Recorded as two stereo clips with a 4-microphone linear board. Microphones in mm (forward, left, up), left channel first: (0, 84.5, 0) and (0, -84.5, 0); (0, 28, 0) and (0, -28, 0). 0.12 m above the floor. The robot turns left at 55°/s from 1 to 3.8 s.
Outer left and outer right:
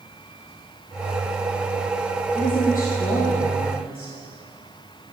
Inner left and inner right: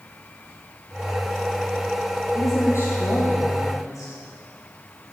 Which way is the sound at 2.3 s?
140° left.